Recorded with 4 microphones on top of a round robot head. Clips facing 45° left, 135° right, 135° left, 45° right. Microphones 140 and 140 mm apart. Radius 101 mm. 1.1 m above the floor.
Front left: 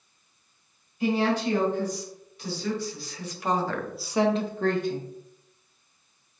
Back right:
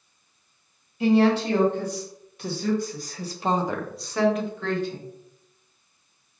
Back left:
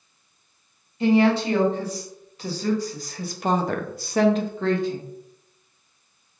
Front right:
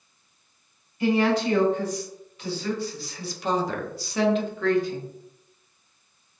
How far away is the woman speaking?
About 1.6 m.